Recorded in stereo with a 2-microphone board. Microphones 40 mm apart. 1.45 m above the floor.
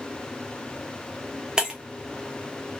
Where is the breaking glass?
20° right (ahead or behind), 0.7 m.